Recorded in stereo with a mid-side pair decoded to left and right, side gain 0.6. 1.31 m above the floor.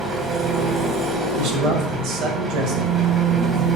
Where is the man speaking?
65° right, 1.2 m.